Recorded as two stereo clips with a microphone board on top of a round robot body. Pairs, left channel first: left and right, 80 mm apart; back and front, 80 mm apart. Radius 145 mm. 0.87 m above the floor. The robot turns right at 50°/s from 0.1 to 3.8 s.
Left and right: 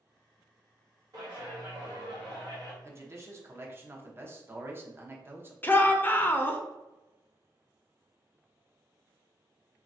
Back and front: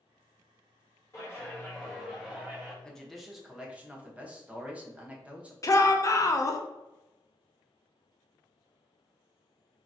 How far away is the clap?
About 1.4 m.